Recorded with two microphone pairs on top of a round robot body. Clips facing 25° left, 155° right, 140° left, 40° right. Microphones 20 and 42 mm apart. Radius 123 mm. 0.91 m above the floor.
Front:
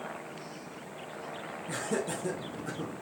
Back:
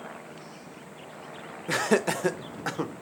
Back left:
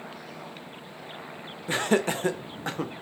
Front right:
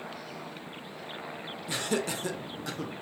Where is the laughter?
175° right, 0.5 m.